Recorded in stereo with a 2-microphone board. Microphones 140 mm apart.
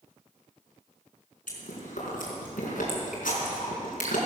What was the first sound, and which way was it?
Chewing, 80° left.